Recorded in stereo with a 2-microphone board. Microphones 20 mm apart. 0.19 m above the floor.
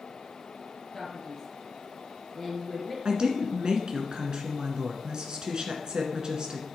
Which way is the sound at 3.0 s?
45° right (ahead or behind).